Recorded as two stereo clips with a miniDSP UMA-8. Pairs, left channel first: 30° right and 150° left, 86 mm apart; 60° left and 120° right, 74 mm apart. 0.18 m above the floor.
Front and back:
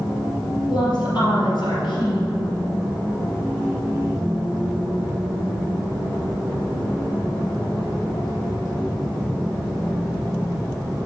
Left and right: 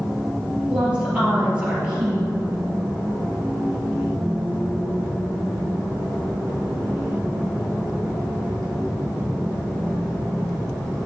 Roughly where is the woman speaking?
Ahead right.